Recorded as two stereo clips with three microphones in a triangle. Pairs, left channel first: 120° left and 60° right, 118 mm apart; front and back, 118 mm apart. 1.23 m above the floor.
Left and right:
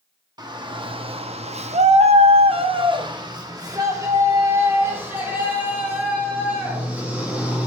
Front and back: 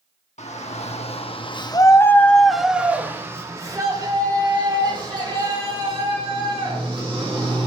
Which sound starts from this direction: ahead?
A shout, at 0.4 s.